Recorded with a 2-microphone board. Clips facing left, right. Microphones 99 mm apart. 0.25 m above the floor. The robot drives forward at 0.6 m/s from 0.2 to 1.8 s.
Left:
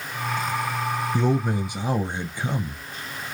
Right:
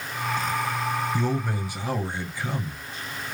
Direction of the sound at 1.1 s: 20° left (ahead or behind).